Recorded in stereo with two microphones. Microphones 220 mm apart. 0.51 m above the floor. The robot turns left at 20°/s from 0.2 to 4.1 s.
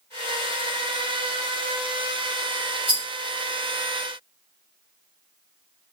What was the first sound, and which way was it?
A rattle, 60° left (ahead or behind).